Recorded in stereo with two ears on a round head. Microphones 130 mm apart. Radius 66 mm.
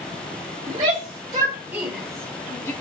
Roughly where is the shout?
Right.